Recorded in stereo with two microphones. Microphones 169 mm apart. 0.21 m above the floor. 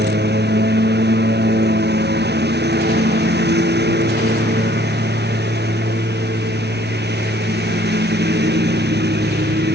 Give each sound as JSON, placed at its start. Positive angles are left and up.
{"t": 0.0, "sound": "a lawn mower", "side_deg": -85}